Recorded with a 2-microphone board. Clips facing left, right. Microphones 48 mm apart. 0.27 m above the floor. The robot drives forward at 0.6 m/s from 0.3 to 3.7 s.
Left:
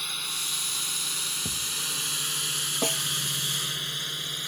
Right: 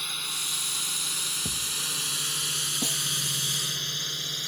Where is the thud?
Centre (ahead or behind).